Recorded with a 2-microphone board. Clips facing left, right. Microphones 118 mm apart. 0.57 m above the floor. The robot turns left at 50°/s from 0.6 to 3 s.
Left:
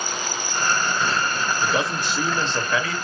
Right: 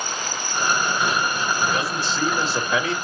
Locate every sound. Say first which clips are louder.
1.6 s a man speaking: even; 40° left, 2 m; by 3.0 s 30° right, 2 m